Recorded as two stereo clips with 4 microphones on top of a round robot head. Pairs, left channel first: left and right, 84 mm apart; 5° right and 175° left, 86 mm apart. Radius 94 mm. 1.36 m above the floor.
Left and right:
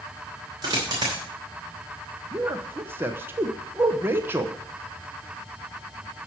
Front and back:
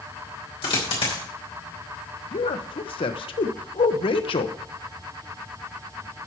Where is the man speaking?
25° right, 1.0 m.